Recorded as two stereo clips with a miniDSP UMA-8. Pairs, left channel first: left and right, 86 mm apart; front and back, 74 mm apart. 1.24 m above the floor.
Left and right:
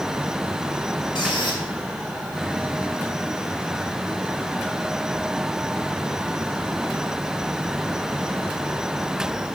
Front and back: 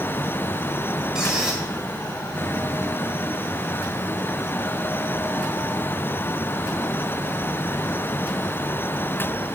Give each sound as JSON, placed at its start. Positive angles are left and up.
{"t": 1.1, "sound": "a squeak", "azimuth_deg": 100, "distance_m": 2.0}